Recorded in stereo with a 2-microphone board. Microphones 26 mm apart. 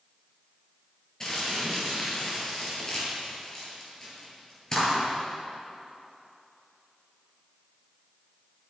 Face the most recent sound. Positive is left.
turn(degrees=25)  # may be behind; listen again after turning